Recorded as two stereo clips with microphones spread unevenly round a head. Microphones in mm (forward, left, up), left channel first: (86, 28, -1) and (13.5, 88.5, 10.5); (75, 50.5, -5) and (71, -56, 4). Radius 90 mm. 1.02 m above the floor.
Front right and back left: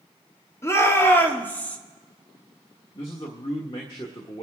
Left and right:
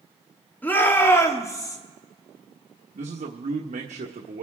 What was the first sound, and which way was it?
A shout, 15° left.